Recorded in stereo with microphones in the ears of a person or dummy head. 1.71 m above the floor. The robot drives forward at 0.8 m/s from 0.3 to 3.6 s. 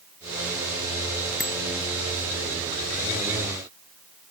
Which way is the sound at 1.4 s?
Centre (ahead or behind).